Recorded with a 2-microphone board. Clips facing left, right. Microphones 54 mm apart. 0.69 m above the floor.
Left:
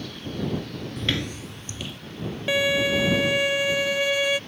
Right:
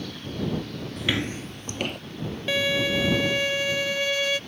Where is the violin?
10° left (ahead or behind).